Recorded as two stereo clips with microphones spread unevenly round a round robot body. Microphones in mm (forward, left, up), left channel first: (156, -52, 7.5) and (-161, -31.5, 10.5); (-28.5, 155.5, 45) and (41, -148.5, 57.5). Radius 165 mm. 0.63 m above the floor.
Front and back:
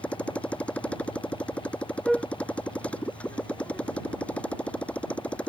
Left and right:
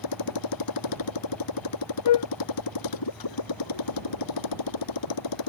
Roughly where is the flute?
Left.